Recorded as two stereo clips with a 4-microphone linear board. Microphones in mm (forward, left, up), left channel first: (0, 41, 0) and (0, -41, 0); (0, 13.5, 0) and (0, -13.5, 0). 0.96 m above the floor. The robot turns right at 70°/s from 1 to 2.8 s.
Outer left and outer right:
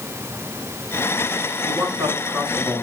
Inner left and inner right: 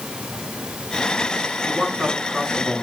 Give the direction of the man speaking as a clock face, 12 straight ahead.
2 o'clock.